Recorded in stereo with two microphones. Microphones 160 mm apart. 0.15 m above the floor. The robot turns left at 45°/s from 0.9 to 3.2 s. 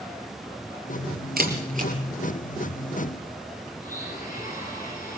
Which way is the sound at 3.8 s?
60° left (ahead or behind).